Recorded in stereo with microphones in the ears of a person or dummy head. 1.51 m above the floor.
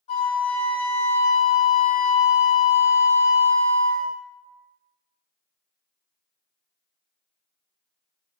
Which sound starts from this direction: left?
A flute, at 0.1 s.